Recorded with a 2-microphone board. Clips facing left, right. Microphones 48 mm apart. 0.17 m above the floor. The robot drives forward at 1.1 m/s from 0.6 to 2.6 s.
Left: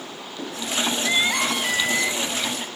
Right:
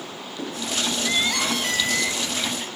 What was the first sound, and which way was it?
Crying, 20° left (ahead or behind).